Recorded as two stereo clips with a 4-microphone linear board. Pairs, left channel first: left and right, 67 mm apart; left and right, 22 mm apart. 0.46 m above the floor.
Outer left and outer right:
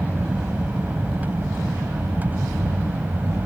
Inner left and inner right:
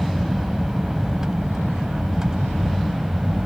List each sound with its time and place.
0.0 s an aircraft: 20° right (ahead or behind); by 3.5 s 25° right (ahead or behind)